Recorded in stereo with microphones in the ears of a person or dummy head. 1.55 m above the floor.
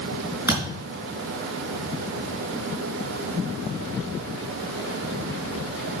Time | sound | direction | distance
0.5 | a thud | 15° right (ahead or behind) | 4.5 m